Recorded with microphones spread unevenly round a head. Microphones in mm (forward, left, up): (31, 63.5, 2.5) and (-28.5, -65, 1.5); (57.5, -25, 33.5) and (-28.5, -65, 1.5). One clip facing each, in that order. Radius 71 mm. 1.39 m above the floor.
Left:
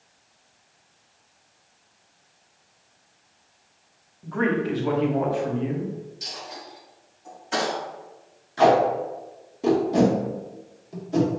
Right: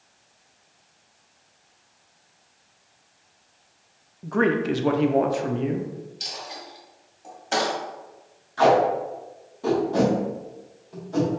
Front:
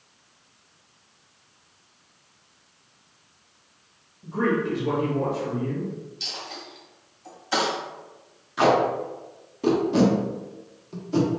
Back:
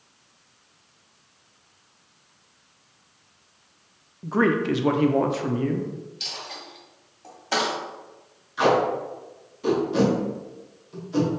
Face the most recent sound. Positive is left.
turn(degrees=0)